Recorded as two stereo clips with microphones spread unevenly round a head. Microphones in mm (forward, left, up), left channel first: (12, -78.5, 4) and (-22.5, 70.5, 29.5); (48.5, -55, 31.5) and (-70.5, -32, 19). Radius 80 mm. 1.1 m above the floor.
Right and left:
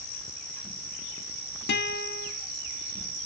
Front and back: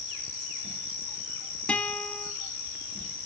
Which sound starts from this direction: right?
A guitar, at 1.7 s.